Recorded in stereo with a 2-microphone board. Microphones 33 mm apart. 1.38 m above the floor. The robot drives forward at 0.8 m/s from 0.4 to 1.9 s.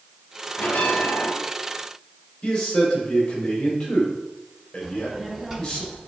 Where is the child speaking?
15° right (ahead or behind), 1.5 m.